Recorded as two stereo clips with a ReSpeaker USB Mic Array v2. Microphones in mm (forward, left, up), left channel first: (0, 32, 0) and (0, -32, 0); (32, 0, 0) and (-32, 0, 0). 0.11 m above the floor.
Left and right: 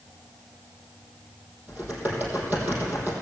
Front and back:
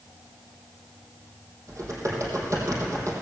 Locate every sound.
1.7 s typing on a keyboard: 150° right, 3.5 m